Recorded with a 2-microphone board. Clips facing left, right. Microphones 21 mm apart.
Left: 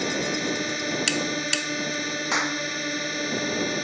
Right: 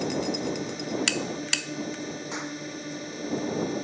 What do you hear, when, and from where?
0.0 s a drone: 55° left (ahead or behind)
2.3 s a clap: 55° left (ahead or behind)